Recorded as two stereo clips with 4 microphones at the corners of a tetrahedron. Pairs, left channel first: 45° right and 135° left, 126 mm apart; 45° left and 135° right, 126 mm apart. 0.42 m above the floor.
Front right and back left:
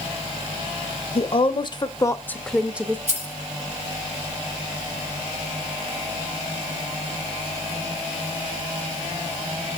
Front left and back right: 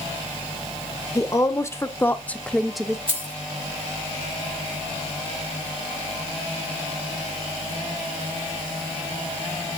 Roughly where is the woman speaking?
Ahead.